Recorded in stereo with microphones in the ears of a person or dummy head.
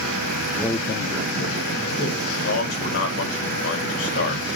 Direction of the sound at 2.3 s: 80° left.